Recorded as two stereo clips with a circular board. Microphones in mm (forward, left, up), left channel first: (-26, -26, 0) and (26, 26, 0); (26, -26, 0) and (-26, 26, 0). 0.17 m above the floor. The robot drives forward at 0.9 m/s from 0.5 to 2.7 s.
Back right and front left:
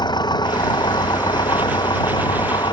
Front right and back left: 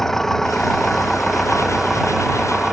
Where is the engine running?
130° right; by 2.7 s 140° right.